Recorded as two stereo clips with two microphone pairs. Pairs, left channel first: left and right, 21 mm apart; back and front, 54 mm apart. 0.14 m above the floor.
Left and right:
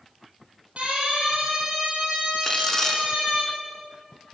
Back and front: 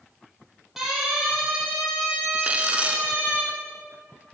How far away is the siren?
About 7 m.